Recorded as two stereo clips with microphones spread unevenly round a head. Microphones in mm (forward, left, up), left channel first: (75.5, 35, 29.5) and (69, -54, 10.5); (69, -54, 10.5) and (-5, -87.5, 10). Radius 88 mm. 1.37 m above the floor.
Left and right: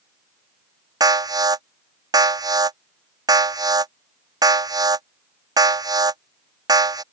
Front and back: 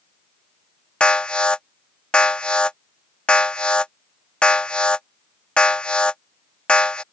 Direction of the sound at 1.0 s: 55° right.